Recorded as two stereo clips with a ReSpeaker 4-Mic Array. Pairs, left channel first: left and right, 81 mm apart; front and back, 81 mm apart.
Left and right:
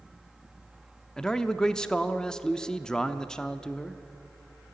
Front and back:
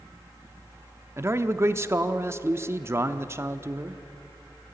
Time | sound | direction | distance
1.2 | a man speaking | 165° left | 0.7 m